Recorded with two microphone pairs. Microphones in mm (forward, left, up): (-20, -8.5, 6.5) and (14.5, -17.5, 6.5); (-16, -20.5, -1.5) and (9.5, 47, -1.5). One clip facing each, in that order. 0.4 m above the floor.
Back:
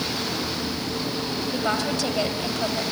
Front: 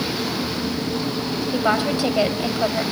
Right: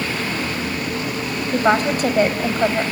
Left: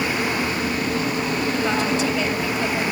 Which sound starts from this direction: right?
A woman speaking, at 1.5 s.